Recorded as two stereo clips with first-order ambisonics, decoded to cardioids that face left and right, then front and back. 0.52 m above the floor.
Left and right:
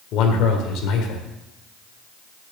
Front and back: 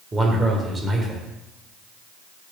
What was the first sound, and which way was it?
A man speaking, 110° left.